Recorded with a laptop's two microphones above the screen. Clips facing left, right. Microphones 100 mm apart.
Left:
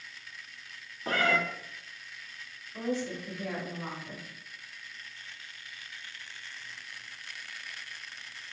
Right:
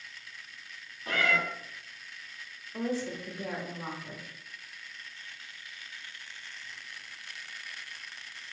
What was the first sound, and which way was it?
A cat meowing, 35° left (ahead or behind).